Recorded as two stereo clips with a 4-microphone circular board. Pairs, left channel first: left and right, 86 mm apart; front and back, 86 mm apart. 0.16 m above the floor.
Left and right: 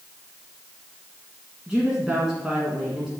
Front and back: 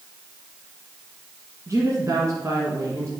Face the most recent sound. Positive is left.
turn(degrees=-165)